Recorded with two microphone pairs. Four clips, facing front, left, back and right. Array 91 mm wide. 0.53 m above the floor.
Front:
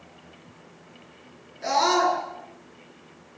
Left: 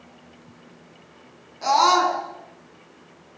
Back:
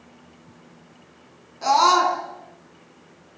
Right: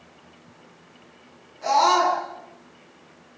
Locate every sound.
1.6 s a scream: 160° left, 7 m